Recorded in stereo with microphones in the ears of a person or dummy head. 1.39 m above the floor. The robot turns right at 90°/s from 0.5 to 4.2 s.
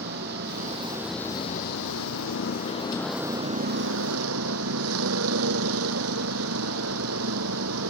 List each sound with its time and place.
0.0 s a vehicle: 55° right; by 7.9 s 85° right